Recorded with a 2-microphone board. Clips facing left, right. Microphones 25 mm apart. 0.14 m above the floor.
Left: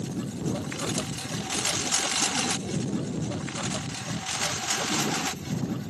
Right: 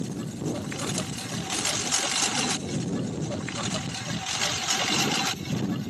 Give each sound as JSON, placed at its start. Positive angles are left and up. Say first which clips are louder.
{"t": 0.0, "sound": "a lawn mower", "louder": "even", "side_deg": 5}